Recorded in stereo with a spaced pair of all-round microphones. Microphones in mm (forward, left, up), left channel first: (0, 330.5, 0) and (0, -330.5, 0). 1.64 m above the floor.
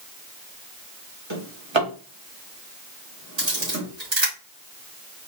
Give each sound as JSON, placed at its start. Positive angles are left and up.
{"t": 1.3, "sound": "a drawer", "side_deg": -45, "distance_m": 1.6}
{"t": 3.4, "sound": "a camera shutter", "side_deg": -40, "distance_m": 2.5}